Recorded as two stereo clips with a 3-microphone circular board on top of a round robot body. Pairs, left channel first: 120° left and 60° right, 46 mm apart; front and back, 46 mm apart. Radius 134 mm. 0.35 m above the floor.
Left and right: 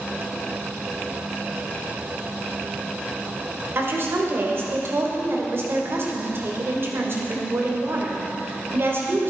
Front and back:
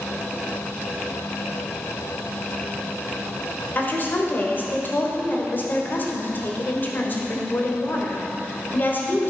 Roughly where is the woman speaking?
Ahead right.